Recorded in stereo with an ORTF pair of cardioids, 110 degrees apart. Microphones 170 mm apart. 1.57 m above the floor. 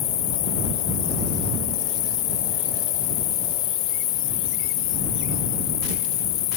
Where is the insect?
70° left.